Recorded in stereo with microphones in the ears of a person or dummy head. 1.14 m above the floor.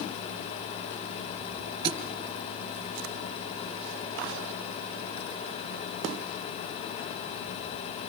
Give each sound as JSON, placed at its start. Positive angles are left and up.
{"t": 1.8, "sound": "a thud", "side_deg": -30, "distance_m": 3.0}